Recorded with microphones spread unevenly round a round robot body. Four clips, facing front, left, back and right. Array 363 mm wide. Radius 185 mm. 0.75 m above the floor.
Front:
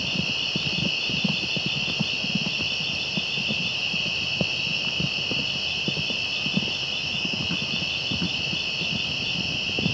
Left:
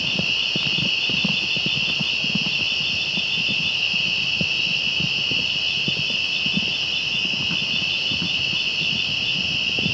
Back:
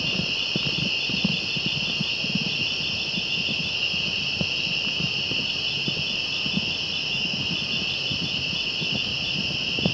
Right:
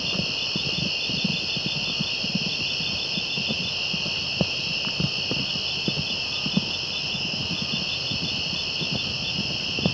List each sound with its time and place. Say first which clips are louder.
0.0 s an insect: left 2 dB, even; 130° right, 1.0 m